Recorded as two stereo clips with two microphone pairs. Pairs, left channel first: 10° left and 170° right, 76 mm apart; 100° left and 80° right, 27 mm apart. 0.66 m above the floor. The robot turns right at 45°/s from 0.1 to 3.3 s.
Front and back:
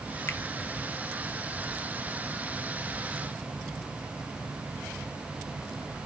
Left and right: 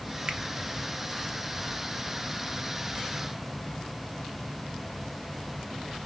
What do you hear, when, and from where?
0.3 s a finger snap: 40° right, 0.9 m; by 0.4 s 35° right, 0.9 m